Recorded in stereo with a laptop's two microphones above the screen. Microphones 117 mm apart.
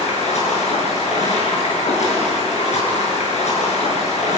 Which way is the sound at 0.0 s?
70° left (ahead or behind).